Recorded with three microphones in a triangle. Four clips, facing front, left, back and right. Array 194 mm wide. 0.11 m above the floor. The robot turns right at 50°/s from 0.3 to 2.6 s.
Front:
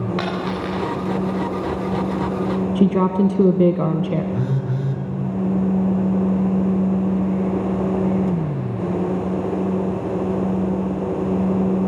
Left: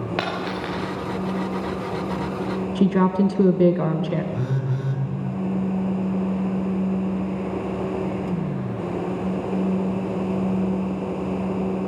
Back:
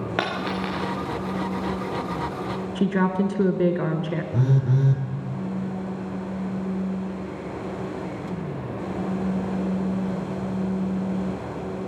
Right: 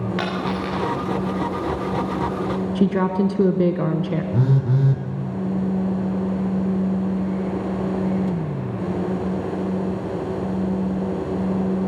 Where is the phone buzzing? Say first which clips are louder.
Right 6 dB, even; 120° right, 2.5 m.